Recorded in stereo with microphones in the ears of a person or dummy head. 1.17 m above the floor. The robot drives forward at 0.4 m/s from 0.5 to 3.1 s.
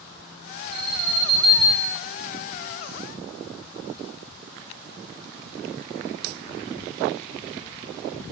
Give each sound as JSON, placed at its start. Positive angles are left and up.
{"t": 0.7, "sound": "an alarm", "side_deg": -30, "distance_m": 9.5}